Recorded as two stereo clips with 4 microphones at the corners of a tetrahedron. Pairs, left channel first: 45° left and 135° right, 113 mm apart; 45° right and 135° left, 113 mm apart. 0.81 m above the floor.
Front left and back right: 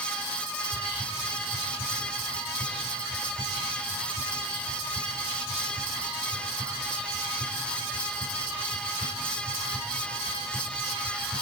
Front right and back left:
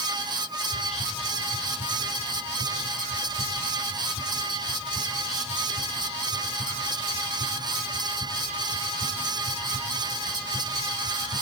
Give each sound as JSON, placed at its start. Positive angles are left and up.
{"t": 0.7, "sound": "whispering", "azimuth_deg": -65, "distance_m": 5.0}